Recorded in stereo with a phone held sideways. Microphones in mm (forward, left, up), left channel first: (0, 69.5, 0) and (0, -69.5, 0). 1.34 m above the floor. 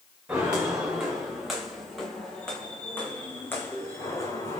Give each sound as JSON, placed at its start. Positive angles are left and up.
{"t": 0.3, "sound": "footsteps", "side_deg": -10, "distance_m": 7.5}